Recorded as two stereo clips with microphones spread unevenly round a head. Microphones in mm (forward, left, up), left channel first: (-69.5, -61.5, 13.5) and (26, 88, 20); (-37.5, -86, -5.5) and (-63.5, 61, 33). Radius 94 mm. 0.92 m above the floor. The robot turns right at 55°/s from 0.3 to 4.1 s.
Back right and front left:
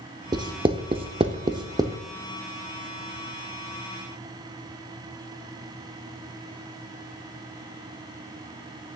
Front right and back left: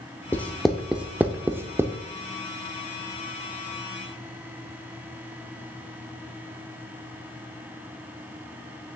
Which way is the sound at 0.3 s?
20° left.